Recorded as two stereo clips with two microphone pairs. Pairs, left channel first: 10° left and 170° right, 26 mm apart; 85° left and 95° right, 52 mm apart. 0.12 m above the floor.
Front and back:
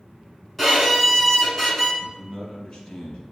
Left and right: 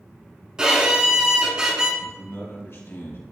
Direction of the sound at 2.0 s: 55° left.